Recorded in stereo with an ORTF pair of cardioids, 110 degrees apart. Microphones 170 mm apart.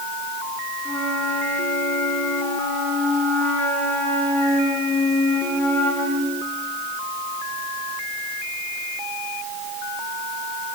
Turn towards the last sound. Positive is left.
turn(degrees=10)